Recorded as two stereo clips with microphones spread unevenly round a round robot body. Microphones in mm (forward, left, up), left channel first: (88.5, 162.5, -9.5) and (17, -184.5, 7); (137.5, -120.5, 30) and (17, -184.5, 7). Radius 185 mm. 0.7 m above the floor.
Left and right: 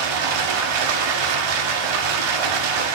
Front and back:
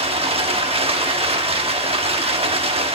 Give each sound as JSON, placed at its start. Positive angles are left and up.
{"t": 0.0, "sound": "running water", "azimuth_deg": -115, "distance_m": 1.9}